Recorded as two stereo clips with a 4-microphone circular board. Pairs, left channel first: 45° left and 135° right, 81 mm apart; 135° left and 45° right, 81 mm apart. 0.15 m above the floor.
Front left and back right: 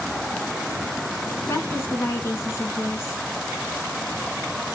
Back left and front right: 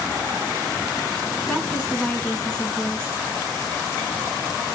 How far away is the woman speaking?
About 1.9 m.